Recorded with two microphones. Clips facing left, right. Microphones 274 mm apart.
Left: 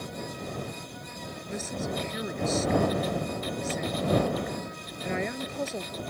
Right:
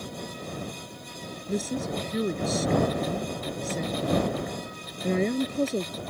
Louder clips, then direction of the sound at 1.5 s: Right 5 dB; 40° right (ahead or behind).